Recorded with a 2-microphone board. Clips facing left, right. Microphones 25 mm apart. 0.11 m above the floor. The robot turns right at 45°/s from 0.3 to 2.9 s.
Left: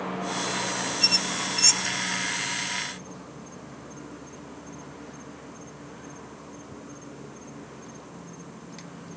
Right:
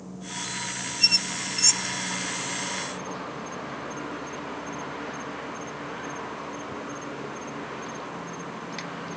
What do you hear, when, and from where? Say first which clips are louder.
0.0 s an insect: left 6 dB; 105° left; by 9.2 s 140° right
1.0 s a squeak: right 2 dB; 15° right (ahead or behind); by 1.9 s 30° left (ahead or behind)